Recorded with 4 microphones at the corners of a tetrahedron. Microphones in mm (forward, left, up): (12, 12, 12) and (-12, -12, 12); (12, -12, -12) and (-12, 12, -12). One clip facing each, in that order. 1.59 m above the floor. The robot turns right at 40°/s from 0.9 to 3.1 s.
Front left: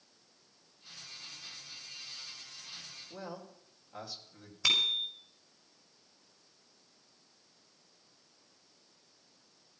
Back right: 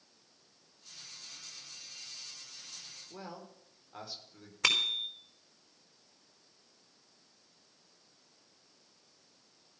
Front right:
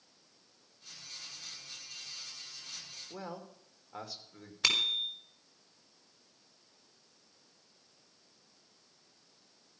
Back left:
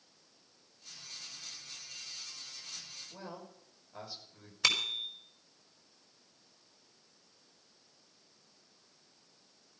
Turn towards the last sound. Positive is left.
turn(degrees=-125)